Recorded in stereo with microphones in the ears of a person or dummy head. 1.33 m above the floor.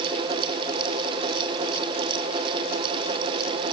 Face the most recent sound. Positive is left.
No sound to turn to.